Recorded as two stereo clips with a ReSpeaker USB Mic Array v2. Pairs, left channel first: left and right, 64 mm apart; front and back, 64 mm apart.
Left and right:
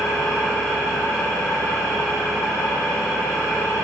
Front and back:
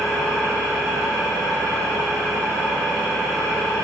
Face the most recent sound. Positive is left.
turn(degrees=70)